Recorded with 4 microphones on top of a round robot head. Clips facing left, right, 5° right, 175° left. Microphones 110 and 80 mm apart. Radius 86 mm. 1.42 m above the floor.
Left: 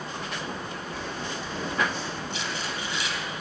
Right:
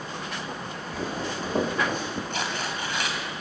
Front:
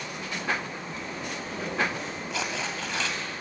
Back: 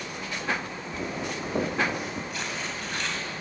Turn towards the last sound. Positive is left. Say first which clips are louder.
# right 2 dB, front 2 dB
turn(degrees=-35)